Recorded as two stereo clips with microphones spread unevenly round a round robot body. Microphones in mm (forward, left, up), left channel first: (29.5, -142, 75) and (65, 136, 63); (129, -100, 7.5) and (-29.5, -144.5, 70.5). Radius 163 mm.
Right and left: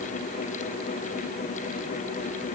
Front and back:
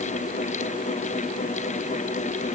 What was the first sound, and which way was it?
Only background noise.